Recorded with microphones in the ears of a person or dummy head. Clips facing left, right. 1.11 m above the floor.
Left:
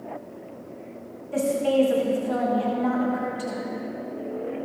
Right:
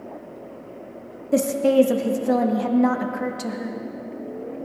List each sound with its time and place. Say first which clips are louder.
1.3 s a woman speaking: right 4 dB; 65° right (ahead or behind), 1.4 m